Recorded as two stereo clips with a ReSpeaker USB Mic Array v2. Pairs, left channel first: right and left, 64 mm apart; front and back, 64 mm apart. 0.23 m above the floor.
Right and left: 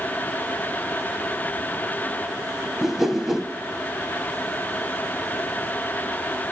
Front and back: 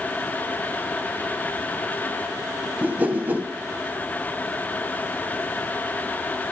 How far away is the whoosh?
About 0.8 m.